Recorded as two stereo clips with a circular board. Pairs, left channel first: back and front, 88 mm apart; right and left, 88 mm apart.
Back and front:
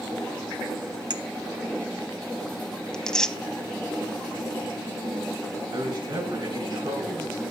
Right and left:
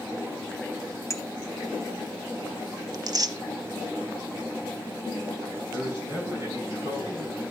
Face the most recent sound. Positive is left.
turn(degrees=35)